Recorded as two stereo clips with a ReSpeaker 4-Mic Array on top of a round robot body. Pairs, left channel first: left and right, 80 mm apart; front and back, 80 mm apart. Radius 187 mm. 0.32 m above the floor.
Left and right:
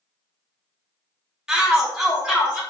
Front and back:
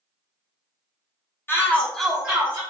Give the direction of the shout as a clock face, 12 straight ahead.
1 o'clock.